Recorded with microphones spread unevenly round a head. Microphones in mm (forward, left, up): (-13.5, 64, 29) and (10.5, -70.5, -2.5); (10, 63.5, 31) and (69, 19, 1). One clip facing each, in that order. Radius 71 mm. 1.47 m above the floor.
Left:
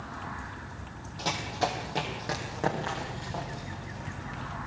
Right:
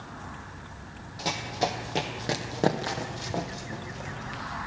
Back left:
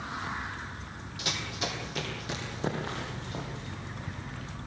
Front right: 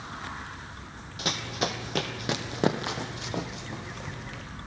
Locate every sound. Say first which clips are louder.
1.2 s running footsteps: right 1 dB, front right 5 dB; 10° left, 2.5 m; by 4.4 s 55° right, 3.5 m